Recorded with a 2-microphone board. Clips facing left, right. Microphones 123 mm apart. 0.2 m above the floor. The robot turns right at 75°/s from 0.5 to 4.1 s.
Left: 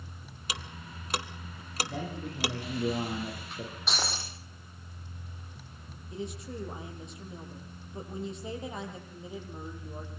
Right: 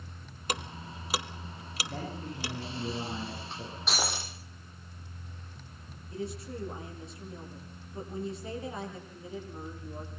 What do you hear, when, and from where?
0.5 s ticking: 50° right (ahead or behind), 1.2 m; by 2.5 s 75° left (ahead or behind), 1.2 m
1.9 s a man speaking: 5° right, 10 m; by 3.8 s 140° left, 10 m
3.9 s breaking glass: centre (ahead or behind), 4.5 m; by 4.3 s 15° right (ahead or behind), 4.5 m
6.1 s a woman speaking: 20° left (ahead or behind), 6.5 m